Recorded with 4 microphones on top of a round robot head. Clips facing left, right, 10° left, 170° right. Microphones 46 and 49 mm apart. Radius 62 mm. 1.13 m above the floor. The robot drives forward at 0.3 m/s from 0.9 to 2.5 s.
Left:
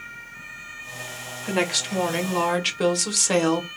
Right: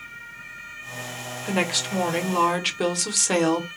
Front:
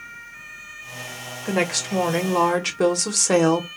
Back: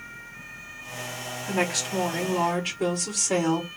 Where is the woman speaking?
Straight ahead, 1.2 m.